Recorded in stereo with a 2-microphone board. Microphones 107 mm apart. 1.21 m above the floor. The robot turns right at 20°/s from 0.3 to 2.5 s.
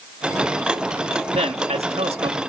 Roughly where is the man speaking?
Right.